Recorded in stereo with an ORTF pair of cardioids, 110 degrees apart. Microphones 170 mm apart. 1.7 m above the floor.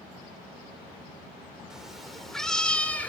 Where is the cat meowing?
5° right, 3.5 m; by 3.1 s 10° left, 3 m.